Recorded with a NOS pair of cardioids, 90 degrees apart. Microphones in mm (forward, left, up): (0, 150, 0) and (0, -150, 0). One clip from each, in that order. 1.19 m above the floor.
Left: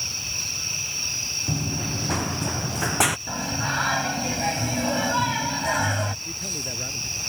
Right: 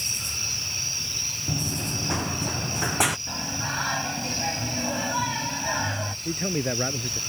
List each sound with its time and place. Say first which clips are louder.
1.5 s running footsteps: even; 15° left
3.3 s singing: left 3 dB; 30° left
6.2 s a man speaking: right 2 dB; 65° right